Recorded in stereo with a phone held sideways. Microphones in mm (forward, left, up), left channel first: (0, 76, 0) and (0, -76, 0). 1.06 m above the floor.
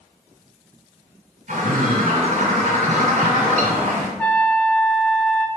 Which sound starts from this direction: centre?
A trumpet, at 4.2 s.